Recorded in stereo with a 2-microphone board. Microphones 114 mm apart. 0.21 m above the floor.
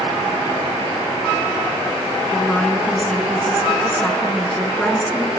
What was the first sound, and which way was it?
A woman speaking, 10° left (ahead or behind).